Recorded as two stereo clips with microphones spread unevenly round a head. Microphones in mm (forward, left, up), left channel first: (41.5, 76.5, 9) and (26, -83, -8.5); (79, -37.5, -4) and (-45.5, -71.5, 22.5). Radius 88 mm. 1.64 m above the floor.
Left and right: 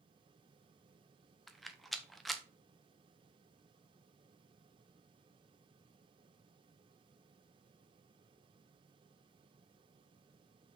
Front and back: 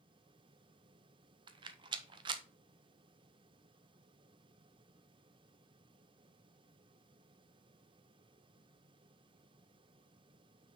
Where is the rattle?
170° left, 0.5 m.